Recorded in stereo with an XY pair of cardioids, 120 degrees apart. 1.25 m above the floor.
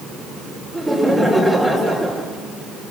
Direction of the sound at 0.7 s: 10° right.